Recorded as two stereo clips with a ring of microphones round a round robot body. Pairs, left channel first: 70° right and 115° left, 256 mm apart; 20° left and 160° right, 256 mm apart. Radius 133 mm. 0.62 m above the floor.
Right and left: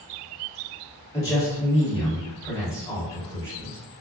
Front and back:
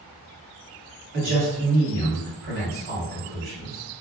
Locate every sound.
1.1 s a man speaking: 140° right, 1.8 m